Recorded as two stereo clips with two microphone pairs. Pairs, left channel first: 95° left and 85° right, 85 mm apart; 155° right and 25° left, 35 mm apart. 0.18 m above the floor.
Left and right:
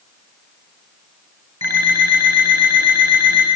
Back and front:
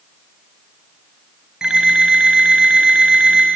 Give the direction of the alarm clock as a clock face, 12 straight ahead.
1 o'clock.